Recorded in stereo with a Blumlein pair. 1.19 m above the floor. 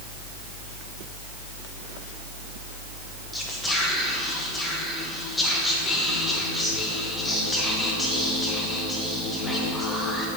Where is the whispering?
10° left, 1.1 m.